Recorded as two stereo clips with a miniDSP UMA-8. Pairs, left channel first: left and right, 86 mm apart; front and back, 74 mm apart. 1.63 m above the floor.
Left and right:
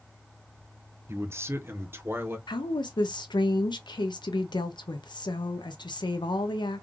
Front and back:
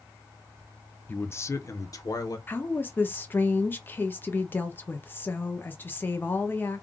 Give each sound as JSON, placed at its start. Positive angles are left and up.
{"t": 1.1, "sound": "a man speaking", "azimuth_deg": -50, "distance_m": 0.6}
{"t": 2.5, "sound": "a woman speaking", "azimuth_deg": 60, "distance_m": 0.8}